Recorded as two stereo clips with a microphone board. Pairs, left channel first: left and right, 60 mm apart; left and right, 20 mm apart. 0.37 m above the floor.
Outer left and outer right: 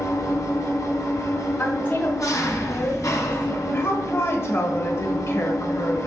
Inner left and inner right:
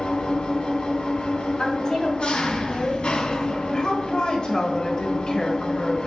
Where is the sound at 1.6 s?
30° left (ahead or behind), 2 m.